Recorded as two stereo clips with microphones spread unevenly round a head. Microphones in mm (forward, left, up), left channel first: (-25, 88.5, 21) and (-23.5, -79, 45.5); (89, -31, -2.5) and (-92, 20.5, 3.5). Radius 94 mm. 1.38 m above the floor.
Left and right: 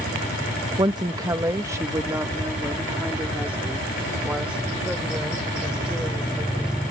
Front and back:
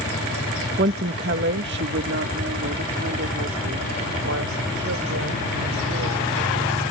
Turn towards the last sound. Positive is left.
turn(degrees=-175)